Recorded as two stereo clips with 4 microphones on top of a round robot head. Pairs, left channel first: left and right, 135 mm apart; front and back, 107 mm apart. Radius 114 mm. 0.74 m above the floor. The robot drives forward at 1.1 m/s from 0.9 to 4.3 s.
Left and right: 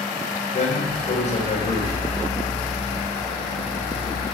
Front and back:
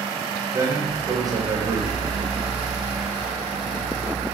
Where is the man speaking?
120° left, 3 m; by 2.2 s 140° left, 3.5 m.